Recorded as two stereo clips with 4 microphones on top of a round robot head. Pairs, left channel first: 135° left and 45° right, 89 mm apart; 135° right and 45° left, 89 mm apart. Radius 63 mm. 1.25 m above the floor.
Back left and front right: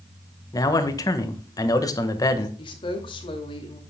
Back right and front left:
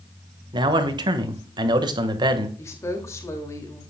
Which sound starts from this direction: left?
A man speaking, at 0.5 s.